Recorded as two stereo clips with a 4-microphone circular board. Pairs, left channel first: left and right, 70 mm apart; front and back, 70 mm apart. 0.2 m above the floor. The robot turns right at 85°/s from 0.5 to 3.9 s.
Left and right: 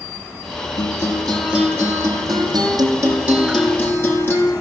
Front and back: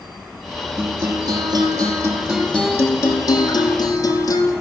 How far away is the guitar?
About 7.5 m.